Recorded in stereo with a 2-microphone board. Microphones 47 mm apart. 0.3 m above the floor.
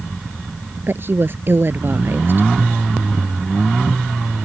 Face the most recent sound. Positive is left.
turn(degrees=-50)  # may be behind; listen again after turning